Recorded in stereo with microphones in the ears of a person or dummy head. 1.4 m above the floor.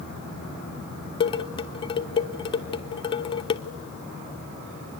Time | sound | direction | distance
1.2 | dishes clattering | 30° left (ahead or behind) | 0.8 m